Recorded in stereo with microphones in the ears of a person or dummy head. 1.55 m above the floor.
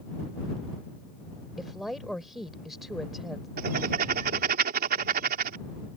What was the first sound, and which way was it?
A woman speaking, 5° left (ahead or behind).